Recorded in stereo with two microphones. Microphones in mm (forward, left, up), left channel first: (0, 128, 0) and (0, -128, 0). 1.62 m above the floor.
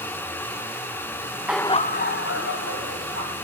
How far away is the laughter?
About 0.5 m.